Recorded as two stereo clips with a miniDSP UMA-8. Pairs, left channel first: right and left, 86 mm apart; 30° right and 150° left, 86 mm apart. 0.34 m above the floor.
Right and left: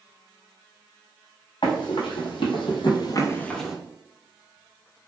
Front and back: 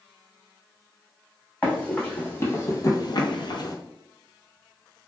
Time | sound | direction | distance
1.6 | running footsteps | 105° right | 1.6 m